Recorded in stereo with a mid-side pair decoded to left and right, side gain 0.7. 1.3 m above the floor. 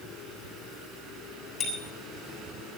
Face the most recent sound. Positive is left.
turn(degrees=40)